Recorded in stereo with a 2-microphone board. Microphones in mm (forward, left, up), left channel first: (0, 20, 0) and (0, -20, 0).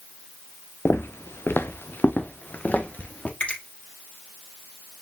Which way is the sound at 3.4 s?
35° left (ahead or behind).